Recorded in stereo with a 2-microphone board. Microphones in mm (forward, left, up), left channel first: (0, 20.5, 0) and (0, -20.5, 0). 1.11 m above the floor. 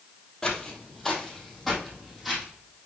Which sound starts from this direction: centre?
Footsteps, at 0.4 s.